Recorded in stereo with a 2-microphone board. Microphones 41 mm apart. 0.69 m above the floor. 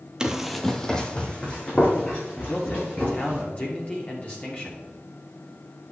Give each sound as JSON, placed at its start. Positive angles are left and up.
{"t": 0.2, "sound": "running footsteps", "side_deg": -20, "distance_m": 0.7}
{"t": 2.5, "sound": "a man speaking", "side_deg": 35, "distance_m": 1.6}